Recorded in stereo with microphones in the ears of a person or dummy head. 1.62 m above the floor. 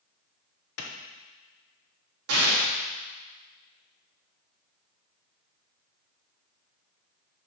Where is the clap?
80° left, 1.3 m.